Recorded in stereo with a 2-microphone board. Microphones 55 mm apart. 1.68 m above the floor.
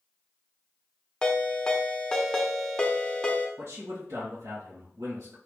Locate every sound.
1.2 s a ringtone: 15° left (ahead or behind), 0.6 m
3.6 s a man speaking: 70° right (ahead or behind), 1.5 m